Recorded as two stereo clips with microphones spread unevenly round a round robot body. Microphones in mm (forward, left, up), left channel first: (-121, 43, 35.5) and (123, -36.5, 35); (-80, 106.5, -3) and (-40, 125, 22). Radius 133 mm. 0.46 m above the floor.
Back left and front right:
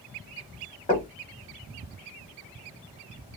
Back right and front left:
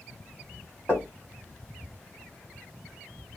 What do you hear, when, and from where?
0.9 s knocking: 145° right, 1.6 m